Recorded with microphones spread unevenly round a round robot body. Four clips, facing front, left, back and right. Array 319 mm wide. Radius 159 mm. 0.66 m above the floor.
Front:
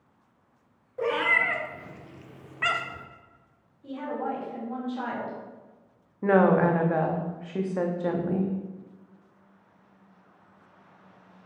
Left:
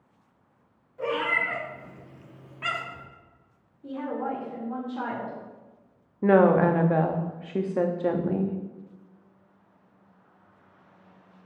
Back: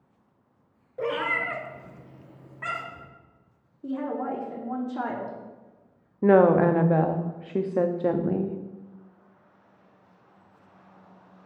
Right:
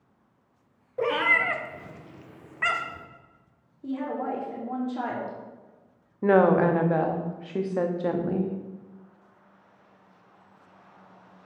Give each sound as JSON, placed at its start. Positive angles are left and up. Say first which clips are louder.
{"t": 1.0, "sound": "a cat meowing", "louder": "right 3 dB, front 2 dB", "azimuth_deg": -80, "distance_m": 1.0}
{"t": 3.8, "sound": "a woman speaking", "louder": "right 1 dB, back 2 dB", "azimuth_deg": -150, "distance_m": 1.2}
{"t": 6.2, "sound": "a woman speaking", "louder": "left 1 dB, back 3 dB", "azimuth_deg": 160, "distance_m": 0.6}